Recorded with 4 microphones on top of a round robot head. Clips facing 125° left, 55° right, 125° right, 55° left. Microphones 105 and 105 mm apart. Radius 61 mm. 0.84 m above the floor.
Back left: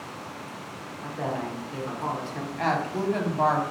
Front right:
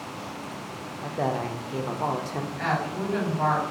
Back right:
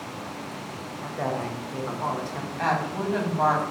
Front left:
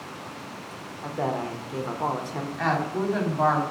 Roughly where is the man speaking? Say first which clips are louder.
Front right 3 dB, front left 1 dB; ahead.